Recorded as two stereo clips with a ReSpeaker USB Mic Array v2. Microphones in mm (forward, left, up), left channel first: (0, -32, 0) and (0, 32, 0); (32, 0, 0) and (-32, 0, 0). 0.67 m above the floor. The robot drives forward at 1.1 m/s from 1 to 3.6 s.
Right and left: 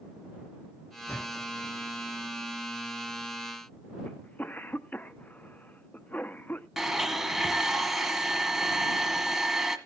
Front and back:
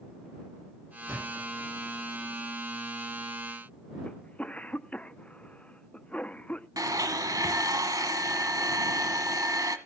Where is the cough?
50° right, 0.6 m.